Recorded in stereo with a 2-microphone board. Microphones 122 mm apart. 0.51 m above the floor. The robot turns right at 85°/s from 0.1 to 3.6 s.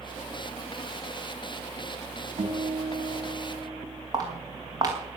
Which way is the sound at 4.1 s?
30° right (ahead or behind).